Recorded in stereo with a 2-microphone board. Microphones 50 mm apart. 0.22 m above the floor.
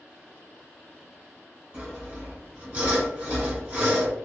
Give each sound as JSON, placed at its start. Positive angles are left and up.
{"t": 1.7, "sound": "sawing", "side_deg": -25, "distance_m": 1.4}